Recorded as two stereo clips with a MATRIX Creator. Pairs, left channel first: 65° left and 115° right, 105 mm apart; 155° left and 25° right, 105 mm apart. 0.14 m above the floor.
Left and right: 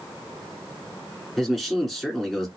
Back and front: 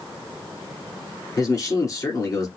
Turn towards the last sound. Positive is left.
turn(degrees=155)